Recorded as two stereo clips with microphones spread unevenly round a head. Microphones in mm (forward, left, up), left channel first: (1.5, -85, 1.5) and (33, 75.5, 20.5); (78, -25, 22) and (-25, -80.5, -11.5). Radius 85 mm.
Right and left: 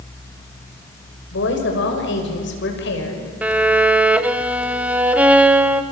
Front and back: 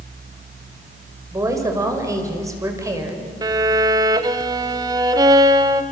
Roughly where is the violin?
Behind.